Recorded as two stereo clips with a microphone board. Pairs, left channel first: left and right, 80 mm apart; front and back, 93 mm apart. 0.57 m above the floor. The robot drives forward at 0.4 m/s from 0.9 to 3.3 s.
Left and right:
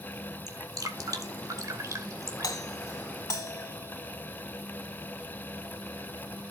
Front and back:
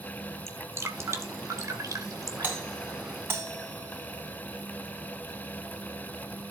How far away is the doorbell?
About 3 m.